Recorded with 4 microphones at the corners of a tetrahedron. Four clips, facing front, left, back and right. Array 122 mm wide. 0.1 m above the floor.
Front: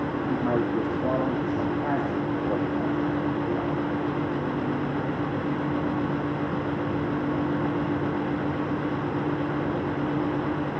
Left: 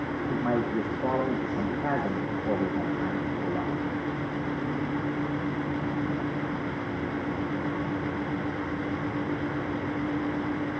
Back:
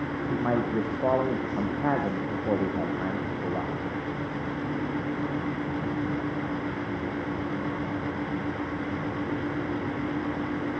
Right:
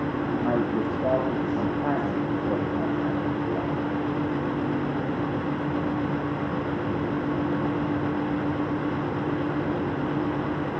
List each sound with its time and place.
0.3 s a man speaking: 170° right, 4.5 m